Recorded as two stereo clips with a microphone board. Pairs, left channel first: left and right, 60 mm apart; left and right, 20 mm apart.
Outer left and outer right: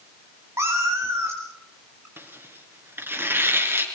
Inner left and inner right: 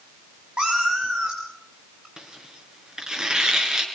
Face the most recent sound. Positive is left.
turn(degrees=-40)  # may be behind; listen again after turning